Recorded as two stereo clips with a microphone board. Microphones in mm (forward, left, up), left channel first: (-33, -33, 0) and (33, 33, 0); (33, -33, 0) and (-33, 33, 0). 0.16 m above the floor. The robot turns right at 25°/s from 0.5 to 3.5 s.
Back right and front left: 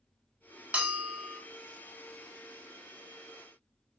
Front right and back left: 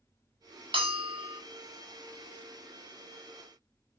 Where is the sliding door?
I don't hear a sliding door.